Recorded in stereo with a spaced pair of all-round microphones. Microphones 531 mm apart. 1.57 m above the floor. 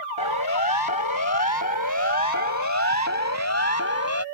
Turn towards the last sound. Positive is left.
turn(degrees=25)  # may be behind; listen again after turning